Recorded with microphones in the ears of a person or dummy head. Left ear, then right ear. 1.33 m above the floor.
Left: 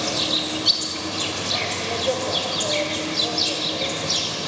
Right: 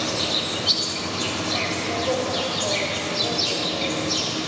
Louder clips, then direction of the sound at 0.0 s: Left 1 dB; 30° left (ahead or behind).